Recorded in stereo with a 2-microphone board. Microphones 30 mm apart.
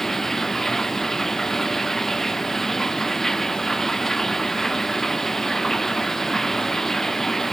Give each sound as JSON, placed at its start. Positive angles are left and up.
{"t": 0.0, "sound": "running water", "side_deg": 10}